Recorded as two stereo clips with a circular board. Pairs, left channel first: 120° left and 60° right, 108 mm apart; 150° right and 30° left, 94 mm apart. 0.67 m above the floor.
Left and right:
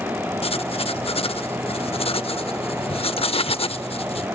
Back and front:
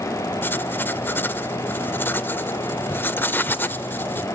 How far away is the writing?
About 0.6 m.